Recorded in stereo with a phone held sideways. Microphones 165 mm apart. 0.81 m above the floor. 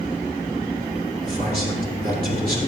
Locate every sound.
1.2 s a man speaking: 65° right (ahead or behind), 2.5 m